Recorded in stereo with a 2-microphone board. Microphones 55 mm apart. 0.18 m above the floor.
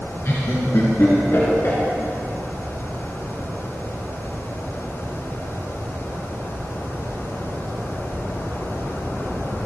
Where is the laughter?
55° left (ahead or behind), 2.5 m.